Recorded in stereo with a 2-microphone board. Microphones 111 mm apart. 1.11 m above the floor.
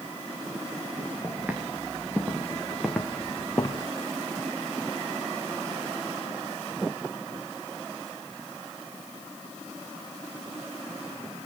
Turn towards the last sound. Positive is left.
turn(degrees=25)  # may be behind; listen again after turning